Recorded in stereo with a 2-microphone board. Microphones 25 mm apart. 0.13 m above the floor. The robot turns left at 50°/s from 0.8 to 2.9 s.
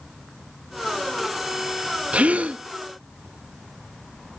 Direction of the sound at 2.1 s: 65° right (ahead or behind).